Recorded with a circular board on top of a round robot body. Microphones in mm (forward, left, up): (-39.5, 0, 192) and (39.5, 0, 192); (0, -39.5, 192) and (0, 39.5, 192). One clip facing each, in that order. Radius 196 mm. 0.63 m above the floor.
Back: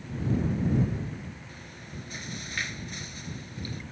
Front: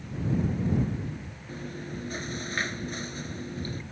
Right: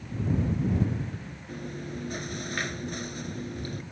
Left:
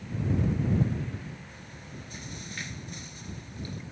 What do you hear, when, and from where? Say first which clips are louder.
1.5 s chewing: front 7 dB, right 9 dB; 55° right